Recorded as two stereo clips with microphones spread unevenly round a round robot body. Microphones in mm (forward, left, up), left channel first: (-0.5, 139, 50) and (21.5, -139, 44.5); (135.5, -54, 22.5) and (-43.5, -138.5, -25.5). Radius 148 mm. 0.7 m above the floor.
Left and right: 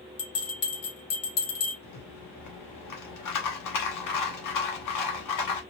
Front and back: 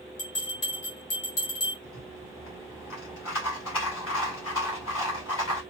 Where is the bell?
70° left, 2 m.